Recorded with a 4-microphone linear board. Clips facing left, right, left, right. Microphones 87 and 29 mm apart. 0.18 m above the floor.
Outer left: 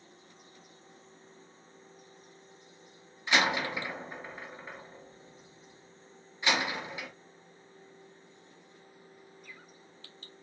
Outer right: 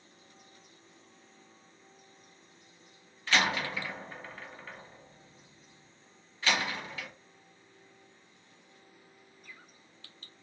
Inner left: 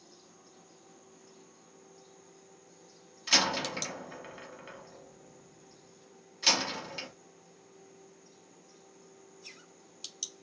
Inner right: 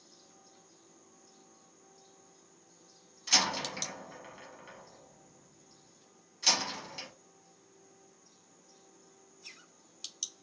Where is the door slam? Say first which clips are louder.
Outer left 1 dB, inner left 2 dB; 15° left (ahead or behind), 0.8 m.